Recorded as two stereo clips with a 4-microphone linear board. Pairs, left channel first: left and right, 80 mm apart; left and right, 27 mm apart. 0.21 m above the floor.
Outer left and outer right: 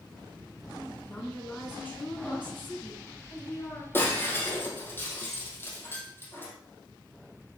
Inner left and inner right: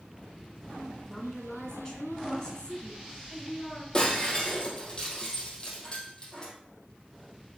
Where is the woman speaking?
20° left (ahead or behind), 2.5 m; by 3.8 s 25° left (ahead or behind), 3.5 m.